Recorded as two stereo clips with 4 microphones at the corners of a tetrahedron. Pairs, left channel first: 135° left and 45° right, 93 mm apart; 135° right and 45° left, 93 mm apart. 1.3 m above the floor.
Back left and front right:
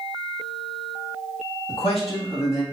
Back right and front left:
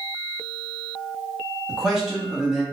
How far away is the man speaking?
About 1.5 m.